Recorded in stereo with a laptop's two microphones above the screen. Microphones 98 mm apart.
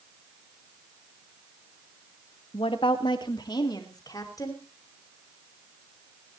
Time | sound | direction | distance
2.5 | a woman speaking | 65° left (ahead or behind) | 1.2 m